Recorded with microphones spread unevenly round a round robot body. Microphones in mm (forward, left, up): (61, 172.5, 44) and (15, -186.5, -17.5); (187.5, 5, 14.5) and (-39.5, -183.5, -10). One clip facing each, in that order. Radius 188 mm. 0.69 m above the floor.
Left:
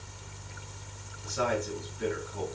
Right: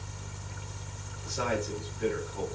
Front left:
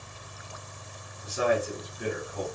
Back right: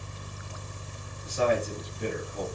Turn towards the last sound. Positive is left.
turn(degrees=120)